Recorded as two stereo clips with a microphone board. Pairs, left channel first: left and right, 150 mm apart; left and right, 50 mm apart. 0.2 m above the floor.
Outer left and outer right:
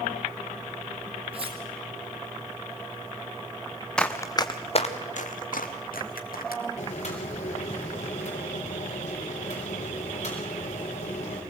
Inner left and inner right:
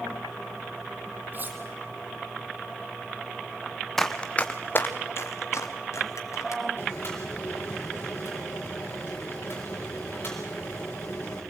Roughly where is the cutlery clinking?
Right.